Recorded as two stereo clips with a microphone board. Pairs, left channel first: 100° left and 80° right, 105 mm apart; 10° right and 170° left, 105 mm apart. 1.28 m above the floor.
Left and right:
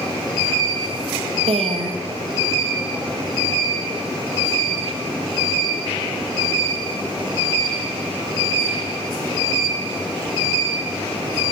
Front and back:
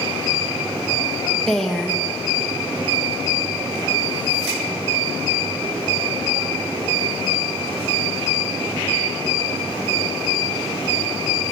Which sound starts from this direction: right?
A woman speaking, at 1.5 s.